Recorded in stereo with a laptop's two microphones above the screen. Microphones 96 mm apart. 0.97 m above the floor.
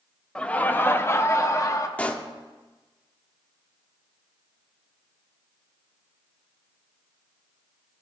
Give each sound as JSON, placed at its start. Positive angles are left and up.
{"t": 0.3, "sound": "laughter", "side_deg": 10, "distance_m": 0.7}
{"t": 2.0, "sound": "a pop", "side_deg": 15, "distance_m": 0.9}